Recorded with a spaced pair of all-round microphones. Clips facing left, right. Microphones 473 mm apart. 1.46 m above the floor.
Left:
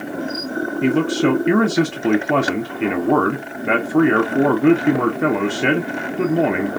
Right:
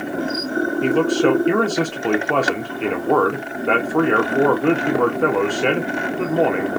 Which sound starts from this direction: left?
A man speaking, at 0.8 s.